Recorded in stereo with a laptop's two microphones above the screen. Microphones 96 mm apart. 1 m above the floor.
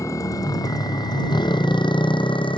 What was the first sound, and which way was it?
A motorcycle, 30° left (ahead or behind).